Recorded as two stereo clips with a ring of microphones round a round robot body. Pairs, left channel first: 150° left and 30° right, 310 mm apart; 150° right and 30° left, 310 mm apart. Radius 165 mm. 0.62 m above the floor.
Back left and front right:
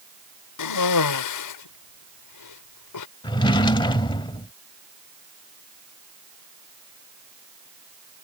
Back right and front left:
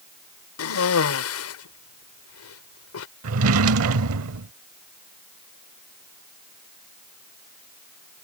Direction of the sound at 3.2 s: 75° left.